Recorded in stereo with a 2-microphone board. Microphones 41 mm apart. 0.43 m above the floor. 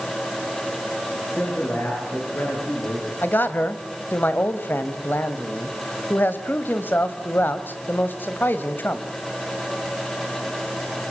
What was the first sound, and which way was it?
A man speaking, 60° left (ahead or behind).